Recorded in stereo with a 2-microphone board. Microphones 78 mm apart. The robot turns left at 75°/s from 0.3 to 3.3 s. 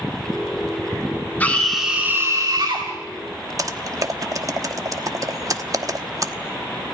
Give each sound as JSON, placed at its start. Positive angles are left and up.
{"t": 1.4, "sound": "a scream", "azimuth_deg": 25, "distance_m": 2.0}
{"t": 3.6, "sound": "typing on a keyboard", "side_deg": -45, "distance_m": 1.1}